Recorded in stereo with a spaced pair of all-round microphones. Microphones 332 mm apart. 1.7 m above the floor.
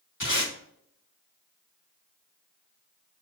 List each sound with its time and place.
0.2 s tape being pulled: 65° left (ahead or behind), 3 m